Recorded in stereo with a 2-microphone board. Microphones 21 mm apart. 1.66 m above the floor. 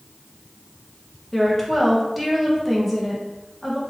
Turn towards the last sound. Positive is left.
turn(degrees=-5)  # may be behind; listen again after turning